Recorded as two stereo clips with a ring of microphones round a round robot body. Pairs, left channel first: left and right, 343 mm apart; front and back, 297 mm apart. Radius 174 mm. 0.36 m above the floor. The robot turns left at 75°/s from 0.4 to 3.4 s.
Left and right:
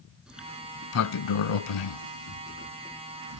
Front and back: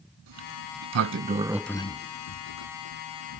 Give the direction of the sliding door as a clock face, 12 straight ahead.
6 o'clock.